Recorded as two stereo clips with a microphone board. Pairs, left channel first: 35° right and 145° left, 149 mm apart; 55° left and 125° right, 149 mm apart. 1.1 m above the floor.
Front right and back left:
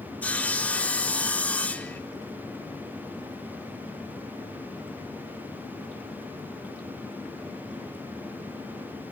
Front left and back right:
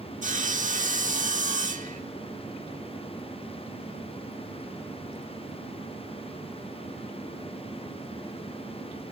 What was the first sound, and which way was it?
Sawing, 115° right.